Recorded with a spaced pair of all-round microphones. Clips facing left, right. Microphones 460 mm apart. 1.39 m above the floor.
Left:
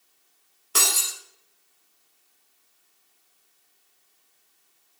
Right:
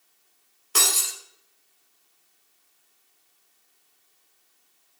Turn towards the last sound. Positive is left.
turn(degrees=0)  # may be behind; listen again after turning